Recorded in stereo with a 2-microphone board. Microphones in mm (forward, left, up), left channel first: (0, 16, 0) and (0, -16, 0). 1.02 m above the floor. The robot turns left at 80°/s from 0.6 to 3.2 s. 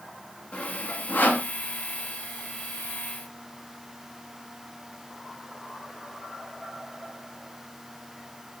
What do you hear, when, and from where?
0.5 s sawing: 40° left (ahead or behind), 4.5 m; by 1.5 s 70° left (ahead or behind), 4.5 m